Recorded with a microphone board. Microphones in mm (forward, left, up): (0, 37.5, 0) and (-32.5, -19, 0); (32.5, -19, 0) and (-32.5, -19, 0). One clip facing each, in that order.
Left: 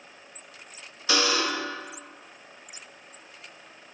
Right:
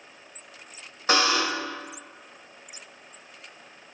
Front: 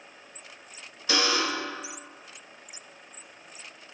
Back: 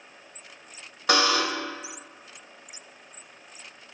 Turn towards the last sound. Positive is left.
turn(degrees=-165)